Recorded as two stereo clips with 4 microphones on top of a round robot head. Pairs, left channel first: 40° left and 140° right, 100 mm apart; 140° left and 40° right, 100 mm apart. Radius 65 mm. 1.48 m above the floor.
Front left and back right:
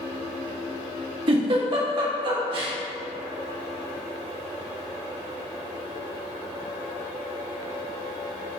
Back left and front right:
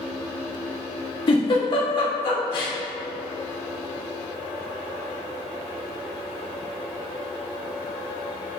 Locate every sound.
1.3 s a giggle: straight behind, 1.2 m